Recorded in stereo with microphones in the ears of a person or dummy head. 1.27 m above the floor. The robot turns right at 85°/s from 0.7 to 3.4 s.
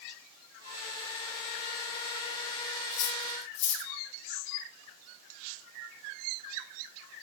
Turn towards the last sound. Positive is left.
turn(degrees=60)  # may be behind; listen again after turning